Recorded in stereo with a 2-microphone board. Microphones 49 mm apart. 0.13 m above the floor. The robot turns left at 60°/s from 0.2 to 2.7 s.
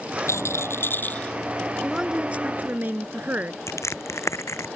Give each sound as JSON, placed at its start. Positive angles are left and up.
{"t": 0.3, "sound": "a rattle", "azimuth_deg": 90}
{"t": 1.8, "sound": "a woman speaking", "azimuth_deg": -10}
{"t": 3.7, "sound": "crushing", "side_deg": 80}